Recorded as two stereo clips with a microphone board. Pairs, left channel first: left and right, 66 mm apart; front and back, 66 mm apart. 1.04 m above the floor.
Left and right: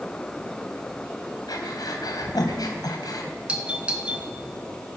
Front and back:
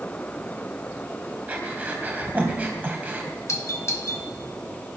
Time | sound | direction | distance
1.5 | breathing | 115° left | 3 m
3.5 | a doorbell | 20° right | 1.8 m